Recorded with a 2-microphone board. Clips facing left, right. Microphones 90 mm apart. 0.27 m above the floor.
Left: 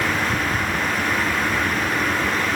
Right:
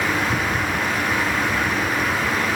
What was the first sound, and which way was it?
Only background noise.